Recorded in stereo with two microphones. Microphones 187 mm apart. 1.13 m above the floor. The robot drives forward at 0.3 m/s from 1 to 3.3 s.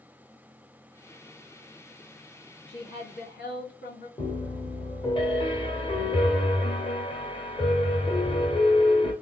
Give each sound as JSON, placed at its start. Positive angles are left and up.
{"t": 2.7, "sound": "a woman speaking", "side_deg": 65, "distance_m": 2.0}
{"t": 4.2, "sound": "a piano", "side_deg": 30, "distance_m": 0.9}